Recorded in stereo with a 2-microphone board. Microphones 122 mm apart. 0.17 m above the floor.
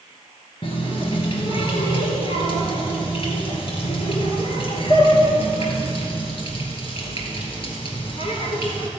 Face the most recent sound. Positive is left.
turn(degrees=50)  # may be behind; listen again after turning